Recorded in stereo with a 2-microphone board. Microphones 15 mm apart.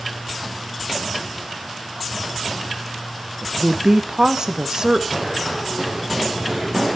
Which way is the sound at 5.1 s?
5° right (ahead or behind).